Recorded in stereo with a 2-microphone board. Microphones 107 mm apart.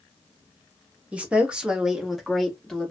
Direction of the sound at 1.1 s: 10° right (ahead or behind).